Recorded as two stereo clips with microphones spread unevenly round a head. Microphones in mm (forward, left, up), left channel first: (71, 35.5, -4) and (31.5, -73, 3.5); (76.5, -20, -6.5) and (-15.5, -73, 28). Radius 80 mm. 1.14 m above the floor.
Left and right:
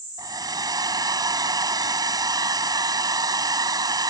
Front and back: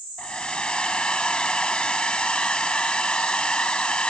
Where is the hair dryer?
55° right.